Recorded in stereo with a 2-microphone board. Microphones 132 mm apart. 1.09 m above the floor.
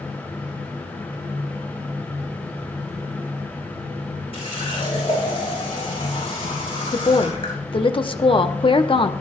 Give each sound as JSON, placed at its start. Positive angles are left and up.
{"t": 4.3, "sound": "a running tap", "side_deg": 45, "distance_m": 5.5}
{"t": 6.9, "sound": "a woman speaking", "side_deg": 40, "distance_m": 0.8}